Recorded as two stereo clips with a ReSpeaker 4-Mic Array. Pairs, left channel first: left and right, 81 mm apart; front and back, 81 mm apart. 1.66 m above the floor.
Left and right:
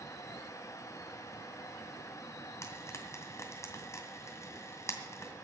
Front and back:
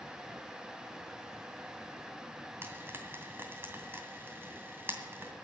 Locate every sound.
2.6 s frying: 125° left, 2 m